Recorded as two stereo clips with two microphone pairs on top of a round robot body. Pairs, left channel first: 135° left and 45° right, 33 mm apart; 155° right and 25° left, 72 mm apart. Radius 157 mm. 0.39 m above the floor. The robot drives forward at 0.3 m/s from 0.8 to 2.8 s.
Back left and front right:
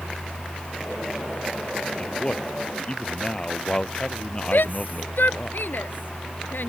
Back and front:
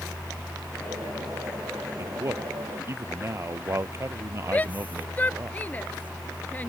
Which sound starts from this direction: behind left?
A shout, at 4.5 s.